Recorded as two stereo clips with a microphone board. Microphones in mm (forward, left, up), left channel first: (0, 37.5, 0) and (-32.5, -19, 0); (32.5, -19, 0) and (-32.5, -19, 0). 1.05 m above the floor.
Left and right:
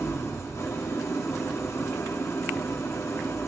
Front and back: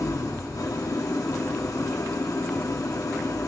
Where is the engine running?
20° left, 0.9 m.